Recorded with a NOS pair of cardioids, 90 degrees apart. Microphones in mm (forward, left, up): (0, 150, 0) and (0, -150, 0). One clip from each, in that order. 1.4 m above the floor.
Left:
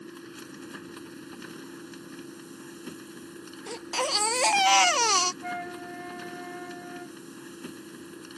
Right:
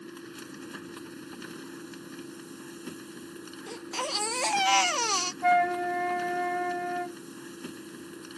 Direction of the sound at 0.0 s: 5° right.